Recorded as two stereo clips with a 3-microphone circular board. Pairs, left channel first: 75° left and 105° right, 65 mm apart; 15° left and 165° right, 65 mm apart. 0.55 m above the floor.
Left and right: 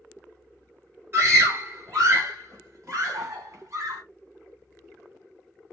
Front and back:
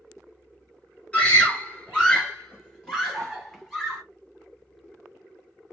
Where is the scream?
55° right, 2 m; by 4.0 s 65° right, 3.5 m.